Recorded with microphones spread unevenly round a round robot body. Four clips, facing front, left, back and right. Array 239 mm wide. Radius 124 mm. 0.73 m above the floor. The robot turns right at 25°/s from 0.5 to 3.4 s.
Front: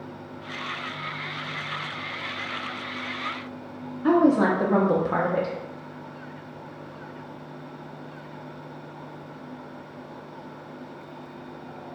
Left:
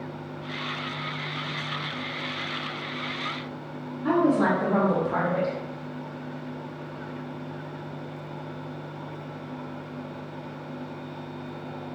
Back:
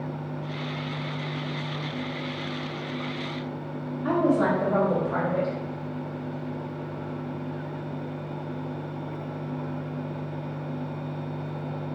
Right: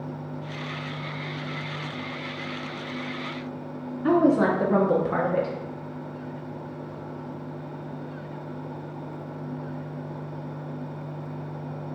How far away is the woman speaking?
About 0.7 m.